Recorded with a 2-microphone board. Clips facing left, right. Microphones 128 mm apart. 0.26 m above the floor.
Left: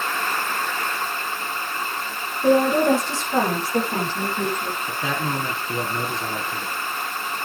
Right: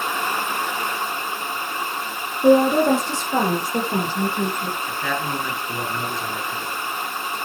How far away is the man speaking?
About 2.5 m.